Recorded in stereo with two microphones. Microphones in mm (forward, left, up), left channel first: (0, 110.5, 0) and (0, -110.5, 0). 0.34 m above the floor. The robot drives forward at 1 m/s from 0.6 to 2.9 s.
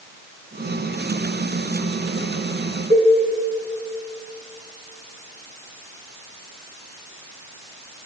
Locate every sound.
2.9 s a cowbell: 30° right (ahead or behind), 3.5 m